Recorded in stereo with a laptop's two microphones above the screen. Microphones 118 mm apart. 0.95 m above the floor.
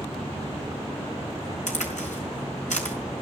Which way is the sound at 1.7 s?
85° left.